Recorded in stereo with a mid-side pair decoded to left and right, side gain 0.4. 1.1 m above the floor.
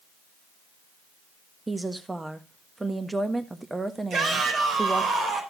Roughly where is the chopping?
I don't hear chopping.